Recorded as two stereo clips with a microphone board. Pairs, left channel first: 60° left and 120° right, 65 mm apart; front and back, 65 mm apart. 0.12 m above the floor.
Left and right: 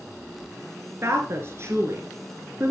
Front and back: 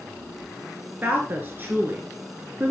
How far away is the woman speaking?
About 1.5 m.